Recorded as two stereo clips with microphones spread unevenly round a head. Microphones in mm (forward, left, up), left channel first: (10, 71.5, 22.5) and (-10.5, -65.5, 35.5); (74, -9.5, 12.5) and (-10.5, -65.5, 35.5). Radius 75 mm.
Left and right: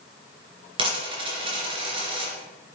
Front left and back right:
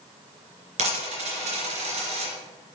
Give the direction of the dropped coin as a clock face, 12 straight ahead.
5 o'clock.